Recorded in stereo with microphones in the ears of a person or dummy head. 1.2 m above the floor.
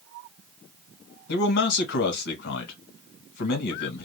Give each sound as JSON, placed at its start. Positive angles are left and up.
{"t": 1.3, "sound": "a man speaking", "side_deg": 70, "distance_m": 1.4}